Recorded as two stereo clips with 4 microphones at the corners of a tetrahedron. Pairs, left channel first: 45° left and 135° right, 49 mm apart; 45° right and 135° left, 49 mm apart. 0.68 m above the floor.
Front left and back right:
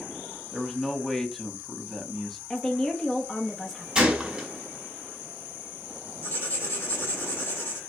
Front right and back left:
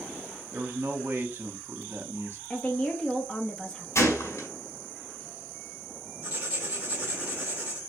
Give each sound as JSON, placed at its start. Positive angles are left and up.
{"t": 0.5, "sound": "a man speaking", "azimuth_deg": 130, "distance_m": 1.0}
{"t": 2.5, "sound": "a woman speaking", "azimuth_deg": -15, "distance_m": 0.9}
{"t": 4.0, "sound": "a gunshot", "azimuth_deg": -65, "distance_m": 1.5}
{"t": 6.2, "sound": "writing", "azimuth_deg": 75, "distance_m": 1.7}